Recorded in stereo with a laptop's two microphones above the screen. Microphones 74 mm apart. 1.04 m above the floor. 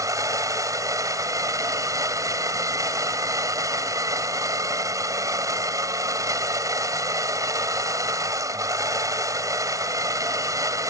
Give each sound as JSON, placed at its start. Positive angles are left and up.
{"t": 0.0, "sound": "a machine running", "side_deg": -50}